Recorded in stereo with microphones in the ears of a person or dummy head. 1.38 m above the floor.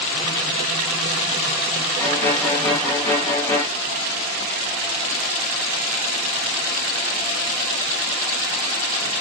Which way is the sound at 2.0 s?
20° left (ahead or behind).